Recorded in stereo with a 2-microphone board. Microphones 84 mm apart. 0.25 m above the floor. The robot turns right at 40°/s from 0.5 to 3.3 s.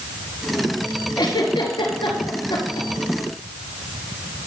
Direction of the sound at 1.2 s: 55° left (ahead or behind).